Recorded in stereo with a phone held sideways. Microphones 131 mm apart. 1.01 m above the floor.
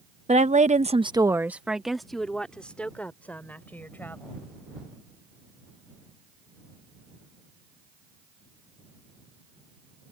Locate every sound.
0.3 s a woman speaking: 55° right (ahead or behind); by 4.4 s 15° left (ahead or behind)